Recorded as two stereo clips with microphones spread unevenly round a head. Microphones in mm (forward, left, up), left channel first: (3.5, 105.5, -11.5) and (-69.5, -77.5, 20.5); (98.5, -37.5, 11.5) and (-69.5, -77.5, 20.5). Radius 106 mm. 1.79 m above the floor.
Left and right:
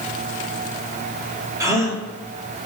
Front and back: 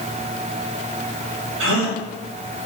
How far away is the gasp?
About 2.5 m.